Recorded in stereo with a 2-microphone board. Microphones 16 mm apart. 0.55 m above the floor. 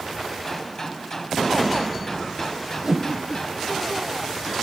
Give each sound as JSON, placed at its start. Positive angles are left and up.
{"t": 0.5, "sound": "a gunshot", "side_deg": 35, "distance_m": 4.0}
{"t": 2.8, "sound": "a whoosh", "side_deg": -35, "distance_m": 1.8}